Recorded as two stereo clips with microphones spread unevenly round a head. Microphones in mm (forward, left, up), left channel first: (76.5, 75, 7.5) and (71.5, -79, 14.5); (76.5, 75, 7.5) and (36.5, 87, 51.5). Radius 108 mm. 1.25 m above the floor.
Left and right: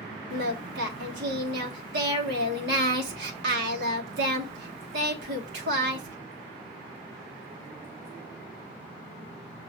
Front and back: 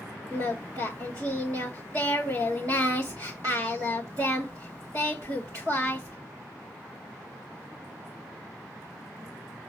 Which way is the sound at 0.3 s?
130° right.